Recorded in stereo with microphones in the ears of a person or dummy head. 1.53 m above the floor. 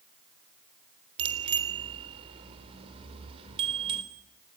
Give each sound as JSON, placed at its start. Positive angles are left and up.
{"t": 1.2, "sound": "a bicycle bell", "side_deg": -30, "distance_m": 3.5}